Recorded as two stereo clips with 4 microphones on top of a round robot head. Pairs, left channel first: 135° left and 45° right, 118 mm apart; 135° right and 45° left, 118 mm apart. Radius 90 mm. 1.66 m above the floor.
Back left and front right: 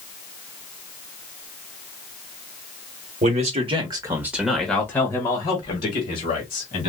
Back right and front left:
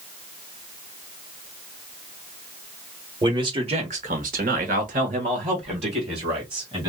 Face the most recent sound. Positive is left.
turn(degrees=95)